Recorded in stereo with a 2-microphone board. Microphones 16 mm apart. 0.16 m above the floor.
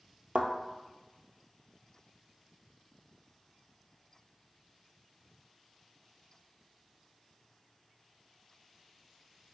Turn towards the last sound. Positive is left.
turn(degrees=-80)